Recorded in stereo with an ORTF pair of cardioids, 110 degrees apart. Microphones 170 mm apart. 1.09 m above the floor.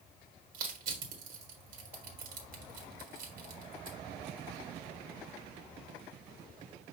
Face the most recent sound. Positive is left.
turn(degrees=-60)